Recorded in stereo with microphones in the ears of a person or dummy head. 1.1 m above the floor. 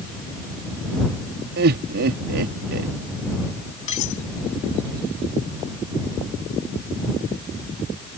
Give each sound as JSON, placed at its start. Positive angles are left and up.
{"t": 1.6, "sound": "laughter", "side_deg": -65}
{"t": 3.9, "sound": "cutlery clinking", "side_deg": 30}